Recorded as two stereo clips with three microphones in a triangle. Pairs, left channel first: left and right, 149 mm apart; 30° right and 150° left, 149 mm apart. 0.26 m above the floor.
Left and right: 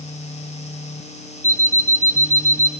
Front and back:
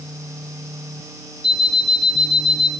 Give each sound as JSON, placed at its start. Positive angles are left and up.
{"t": 1.4, "sound": "an alarm clock", "azimuth_deg": -85, "distance_m": 2.5}